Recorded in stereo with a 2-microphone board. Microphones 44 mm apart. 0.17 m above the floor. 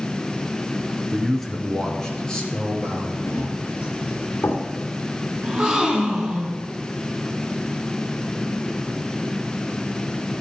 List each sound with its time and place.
1.1 s a man speaking: 5° right (ahead or behind), 1.5 m; by 3.2 s 20° left (ahead or behind), 3.5 m
3.3 s running footsteps: 70° left (ahead or behind), 4.5 m; by 4.7 s 60° left (ahead or behind), 2.5 m
5.4 s a gasp: 20° right (ahead or behind), 1.9 m